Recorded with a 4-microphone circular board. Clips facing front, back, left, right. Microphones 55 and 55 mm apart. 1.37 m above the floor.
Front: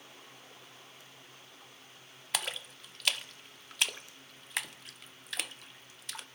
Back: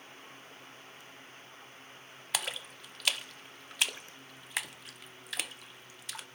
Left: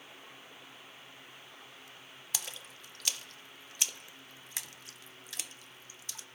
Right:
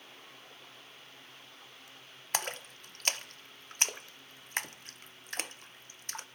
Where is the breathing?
No breathing in this recording.